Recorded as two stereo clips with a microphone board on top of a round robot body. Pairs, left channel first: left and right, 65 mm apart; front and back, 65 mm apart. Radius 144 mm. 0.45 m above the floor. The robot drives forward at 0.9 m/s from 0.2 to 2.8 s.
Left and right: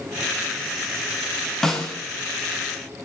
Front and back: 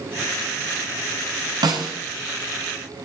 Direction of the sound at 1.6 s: 170° left.